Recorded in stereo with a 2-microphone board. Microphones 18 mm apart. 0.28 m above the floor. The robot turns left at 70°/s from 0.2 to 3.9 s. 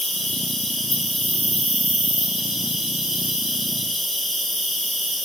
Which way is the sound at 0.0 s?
70° left.